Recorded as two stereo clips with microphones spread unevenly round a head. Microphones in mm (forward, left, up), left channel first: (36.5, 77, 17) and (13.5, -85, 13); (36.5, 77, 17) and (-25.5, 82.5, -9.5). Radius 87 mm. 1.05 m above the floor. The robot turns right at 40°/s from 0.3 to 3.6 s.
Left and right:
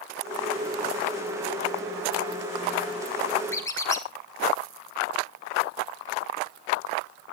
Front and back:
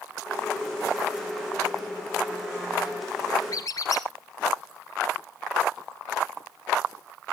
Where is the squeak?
5° left, 2.0 m; by 4.1 s 10° left, 2.0 m.